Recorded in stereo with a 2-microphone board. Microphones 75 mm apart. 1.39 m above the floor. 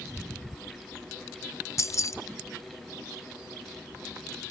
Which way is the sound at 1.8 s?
40° left (ahead or behind).